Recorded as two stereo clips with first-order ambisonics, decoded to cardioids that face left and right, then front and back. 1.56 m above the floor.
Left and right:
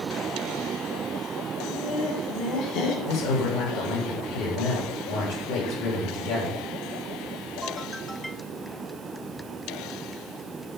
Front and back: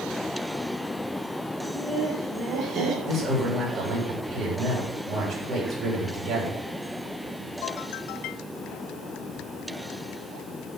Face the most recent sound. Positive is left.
turn(degrees=105)